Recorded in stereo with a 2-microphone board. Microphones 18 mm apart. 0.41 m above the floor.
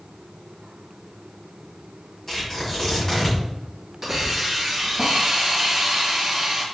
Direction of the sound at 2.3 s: 20° left (ahead or behind).